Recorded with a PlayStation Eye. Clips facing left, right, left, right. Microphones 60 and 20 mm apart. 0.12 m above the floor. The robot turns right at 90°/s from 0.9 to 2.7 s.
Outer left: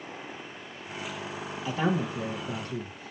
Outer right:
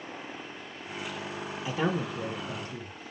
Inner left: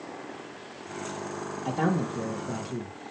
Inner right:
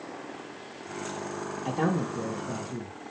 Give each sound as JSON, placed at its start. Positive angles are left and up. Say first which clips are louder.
{"t": 1.6, "sound": "a man speaking", "louder": "outer left 2 dB, inner left 1 dB", "azimuth_deg": -10, "distance_m": 3.5}